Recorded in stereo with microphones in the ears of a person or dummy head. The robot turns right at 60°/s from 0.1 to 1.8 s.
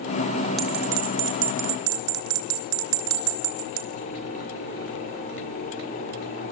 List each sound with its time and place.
0.6 s a bell: centre (ahead or behind), 2.5 m; by 3.9 s 70° right (ahead or behind), 2.5 m